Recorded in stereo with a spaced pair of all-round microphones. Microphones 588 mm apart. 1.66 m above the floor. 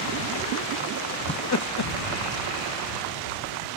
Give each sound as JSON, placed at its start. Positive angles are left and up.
{"t": 1.3, "sound": "laughter", "side_deg": 15}